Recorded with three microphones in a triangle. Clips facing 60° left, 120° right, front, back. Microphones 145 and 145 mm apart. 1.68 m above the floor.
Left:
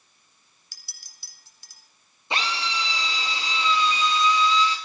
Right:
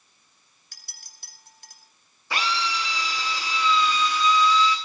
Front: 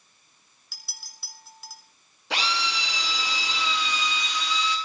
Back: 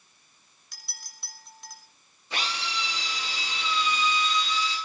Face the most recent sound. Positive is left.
turn(degrees=-10)